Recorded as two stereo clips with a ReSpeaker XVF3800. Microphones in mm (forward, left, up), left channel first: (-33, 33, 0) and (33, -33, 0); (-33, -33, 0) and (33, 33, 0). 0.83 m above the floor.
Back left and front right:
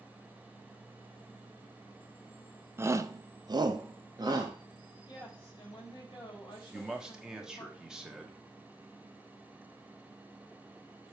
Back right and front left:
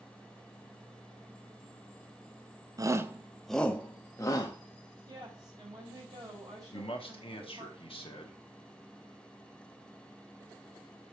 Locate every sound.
2.8 s a shout: 10° left, 0.7 m; by 4.5 s 90° right, 1.1 m
5.1 s a woman speaking: 95° left, 3 m
6.7 s a man speaking: 130° right, 1.4 m